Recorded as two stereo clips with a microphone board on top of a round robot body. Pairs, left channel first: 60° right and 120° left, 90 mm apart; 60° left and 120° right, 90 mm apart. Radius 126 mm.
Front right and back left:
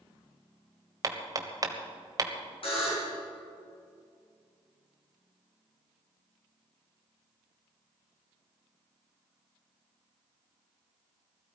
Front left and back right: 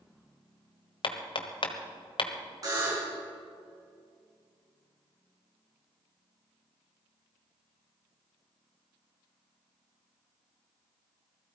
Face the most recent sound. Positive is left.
turn(degrees=-70)